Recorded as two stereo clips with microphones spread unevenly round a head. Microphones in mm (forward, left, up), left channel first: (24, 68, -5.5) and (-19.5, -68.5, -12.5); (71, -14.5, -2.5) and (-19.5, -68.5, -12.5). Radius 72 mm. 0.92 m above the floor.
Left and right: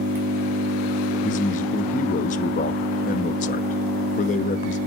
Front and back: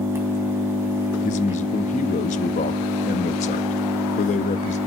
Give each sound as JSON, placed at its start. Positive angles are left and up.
{"t": 0.0, "sound": "an engine running", "azimuth_deg": -85, "distance_m": 3.5}
{"t": 1.2, "sound": "a man speaking", "azimuth_deg": 35, "distance_m": 0.9}